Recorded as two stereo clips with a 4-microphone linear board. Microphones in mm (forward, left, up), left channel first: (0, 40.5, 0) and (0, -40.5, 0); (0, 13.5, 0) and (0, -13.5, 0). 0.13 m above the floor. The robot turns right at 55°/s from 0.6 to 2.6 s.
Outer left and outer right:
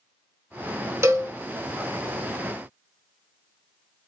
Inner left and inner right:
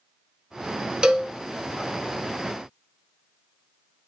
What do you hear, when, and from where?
1.0 s a cowbell: 35° right (ahead or behind), 0.5 m